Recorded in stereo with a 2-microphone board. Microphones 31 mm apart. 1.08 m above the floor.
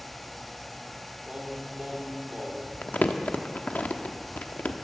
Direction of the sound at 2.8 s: 65° left (ahead or behind).